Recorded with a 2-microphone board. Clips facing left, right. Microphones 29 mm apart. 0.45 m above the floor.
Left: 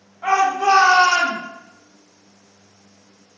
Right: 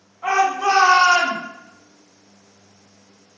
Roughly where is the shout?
Left.